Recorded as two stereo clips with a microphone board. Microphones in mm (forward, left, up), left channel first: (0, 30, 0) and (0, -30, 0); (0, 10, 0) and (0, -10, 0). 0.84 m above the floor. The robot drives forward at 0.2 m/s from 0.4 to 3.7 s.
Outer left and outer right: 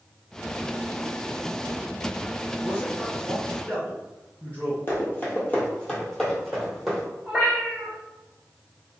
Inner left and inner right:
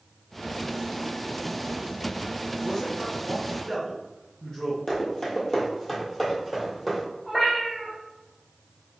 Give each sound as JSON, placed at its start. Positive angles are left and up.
{"t": 2.6, "sound": "a man speaking", "side_deg": 25, "distance_m": 0.9}
{"t": 4.9, "sound": "running footsteps", "side_deg": 35, "distance_m": 1.5}
{"t": 7.2, "sound": "a cat meowing", "side_deg": -20, "distance_m": 1.8}